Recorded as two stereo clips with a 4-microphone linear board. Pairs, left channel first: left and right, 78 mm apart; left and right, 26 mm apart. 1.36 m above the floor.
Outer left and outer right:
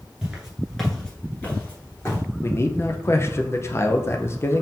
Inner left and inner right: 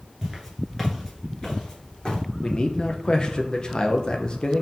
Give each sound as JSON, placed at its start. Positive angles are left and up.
{"t": 0.2, "sound": "footsteps", "side_deg": -10, "distance_m": 1.3}
{"t": 2.4, "sound": "a man speaking", "side_deg": 35, "distance_m": 0.6}